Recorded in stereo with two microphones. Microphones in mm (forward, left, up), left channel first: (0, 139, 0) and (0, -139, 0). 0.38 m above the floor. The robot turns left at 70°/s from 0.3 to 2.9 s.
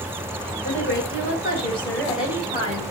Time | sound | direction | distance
0.6 | a woman speaking | 105° left | 1.9 m